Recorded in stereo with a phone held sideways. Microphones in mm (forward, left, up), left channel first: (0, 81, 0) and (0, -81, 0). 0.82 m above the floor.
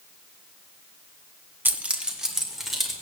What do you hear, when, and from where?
1.6 s keys jangling: 10° right (ahead or behind), 0.8 m; by 2.9 s centre (ahead or behind), 2.5 m